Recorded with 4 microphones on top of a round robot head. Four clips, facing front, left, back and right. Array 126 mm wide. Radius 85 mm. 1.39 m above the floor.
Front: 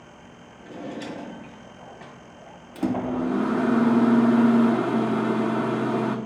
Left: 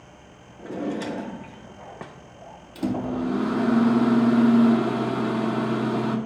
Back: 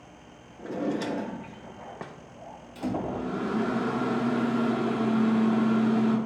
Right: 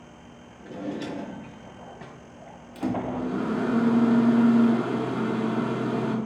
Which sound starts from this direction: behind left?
A drawer, at 0.6 s.